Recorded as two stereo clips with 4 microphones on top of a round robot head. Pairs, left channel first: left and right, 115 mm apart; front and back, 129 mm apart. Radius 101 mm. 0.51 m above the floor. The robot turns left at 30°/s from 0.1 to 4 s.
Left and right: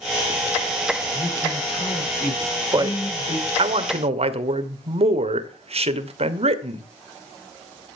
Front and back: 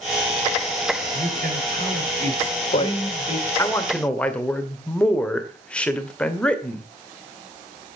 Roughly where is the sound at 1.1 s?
Behind.